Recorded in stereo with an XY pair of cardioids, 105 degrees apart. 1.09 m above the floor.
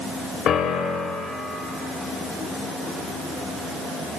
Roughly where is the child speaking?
I don't hear a child speaking.